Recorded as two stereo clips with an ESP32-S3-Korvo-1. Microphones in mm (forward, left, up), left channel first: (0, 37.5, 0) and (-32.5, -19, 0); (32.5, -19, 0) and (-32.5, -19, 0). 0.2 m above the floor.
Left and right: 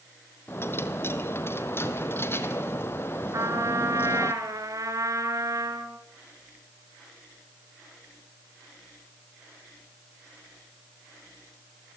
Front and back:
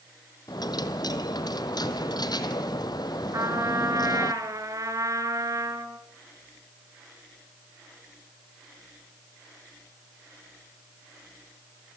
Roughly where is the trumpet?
Behind right.